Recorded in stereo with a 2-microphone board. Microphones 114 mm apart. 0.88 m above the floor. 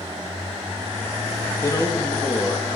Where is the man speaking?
25° left (ahead or behind), 1.1 m.